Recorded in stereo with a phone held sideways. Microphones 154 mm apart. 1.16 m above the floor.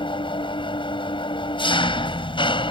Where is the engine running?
35° left (ahead or behind).